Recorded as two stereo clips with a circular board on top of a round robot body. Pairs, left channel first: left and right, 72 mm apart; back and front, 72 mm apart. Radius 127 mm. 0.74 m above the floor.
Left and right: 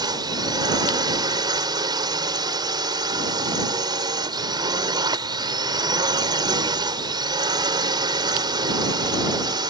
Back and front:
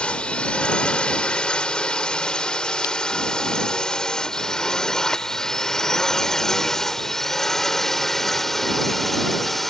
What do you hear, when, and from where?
0.0 s a drone: 105° right; by 9.7 s 95° right